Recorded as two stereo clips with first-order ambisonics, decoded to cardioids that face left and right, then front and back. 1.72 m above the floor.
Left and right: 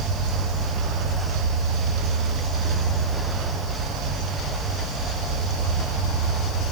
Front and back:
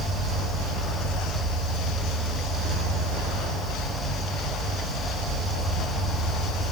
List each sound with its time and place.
0.0 s an insect: 160° right, 1.2 m